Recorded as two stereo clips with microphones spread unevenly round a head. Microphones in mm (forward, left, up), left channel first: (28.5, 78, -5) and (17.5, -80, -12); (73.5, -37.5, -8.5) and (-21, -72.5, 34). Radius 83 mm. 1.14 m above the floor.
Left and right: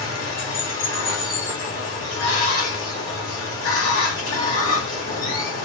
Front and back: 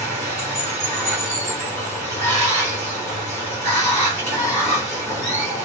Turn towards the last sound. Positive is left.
turn(degrees=110)